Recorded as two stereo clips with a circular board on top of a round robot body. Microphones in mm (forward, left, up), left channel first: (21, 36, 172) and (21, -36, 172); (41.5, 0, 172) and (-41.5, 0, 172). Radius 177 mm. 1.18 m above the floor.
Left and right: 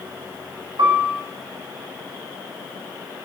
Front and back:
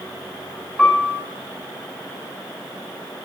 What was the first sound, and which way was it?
A piano, 95° right.